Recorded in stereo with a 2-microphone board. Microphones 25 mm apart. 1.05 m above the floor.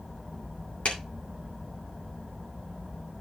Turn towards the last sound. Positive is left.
turn(degrees=55)  # may be behind; listen again after turning